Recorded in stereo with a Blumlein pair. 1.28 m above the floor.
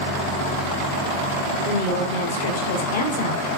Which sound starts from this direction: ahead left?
A woman speaking, at 1.6 s.